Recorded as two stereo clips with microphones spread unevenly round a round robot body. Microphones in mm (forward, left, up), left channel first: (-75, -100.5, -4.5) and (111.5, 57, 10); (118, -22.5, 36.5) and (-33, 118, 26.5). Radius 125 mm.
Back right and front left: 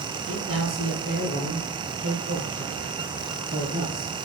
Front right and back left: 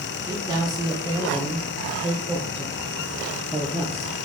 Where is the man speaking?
70° left, 1.5 m; by 4.1 s 75° left, 3.5 m.